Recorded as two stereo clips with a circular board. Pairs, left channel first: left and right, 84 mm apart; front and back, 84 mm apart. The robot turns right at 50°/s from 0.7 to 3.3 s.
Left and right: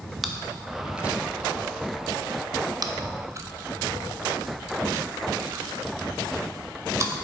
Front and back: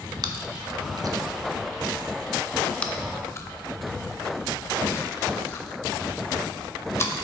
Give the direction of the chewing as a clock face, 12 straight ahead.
6 o'clock.